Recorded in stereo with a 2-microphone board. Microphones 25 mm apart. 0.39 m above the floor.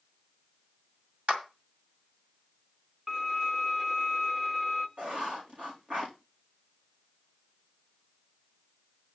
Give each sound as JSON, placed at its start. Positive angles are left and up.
{"t": 1.3, "sound": "a clap", "side_deg": -60, "distance_m": 2.0}
{"t": 3.1, "sound": "a violin", "side_deg": -20, "distance_m": 1.2}
{"t": 5.0, "sound": "writing", "side_deg": -70, "distance_m": 5.0}